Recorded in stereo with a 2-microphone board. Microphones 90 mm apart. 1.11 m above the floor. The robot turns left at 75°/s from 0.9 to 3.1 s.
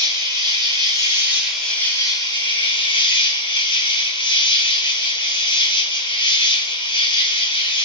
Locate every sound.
0.0 s an insect: 130° right, 0.9 m; by 7.8 s 65° left, 0.9 m